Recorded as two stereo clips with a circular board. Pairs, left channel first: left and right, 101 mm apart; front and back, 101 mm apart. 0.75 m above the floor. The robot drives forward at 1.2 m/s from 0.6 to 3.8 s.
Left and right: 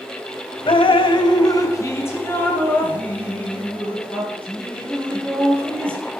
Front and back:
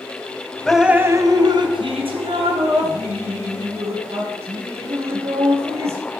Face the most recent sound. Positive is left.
turn(degrees=170)